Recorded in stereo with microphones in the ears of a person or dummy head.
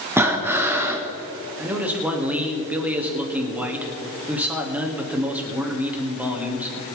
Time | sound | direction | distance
0.2 | breathing | 10° right (ahead or behind) | 1.5 m
1.6 | a man speaking | 5° right (ahead or behind) | 2.5 m